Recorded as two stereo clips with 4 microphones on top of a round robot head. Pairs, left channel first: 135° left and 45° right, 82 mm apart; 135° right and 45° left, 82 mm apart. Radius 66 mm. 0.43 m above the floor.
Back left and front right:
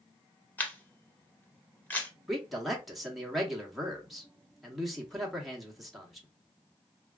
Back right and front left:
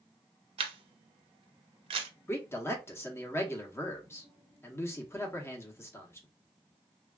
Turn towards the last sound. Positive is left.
turn(degrees=-135)